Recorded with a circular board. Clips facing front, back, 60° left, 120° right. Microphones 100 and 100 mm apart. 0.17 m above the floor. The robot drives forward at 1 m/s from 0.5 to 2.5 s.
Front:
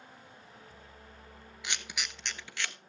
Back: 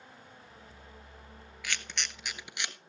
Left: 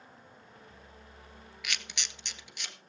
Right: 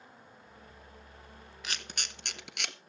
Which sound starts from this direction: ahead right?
A camera shutter, at 1.6 s.